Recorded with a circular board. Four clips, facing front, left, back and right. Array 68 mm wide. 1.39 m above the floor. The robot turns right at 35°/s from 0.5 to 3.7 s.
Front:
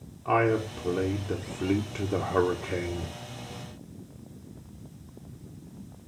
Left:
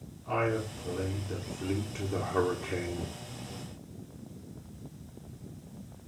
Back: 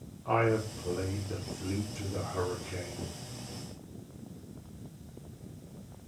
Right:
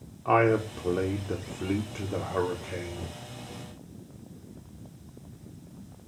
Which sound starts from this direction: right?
A man speaking, at 0.2 s.